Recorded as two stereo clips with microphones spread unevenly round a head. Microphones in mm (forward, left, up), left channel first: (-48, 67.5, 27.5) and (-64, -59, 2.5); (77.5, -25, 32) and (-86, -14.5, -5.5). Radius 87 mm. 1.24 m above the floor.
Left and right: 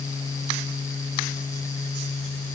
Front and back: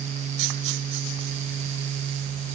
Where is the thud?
I don't hear a thud.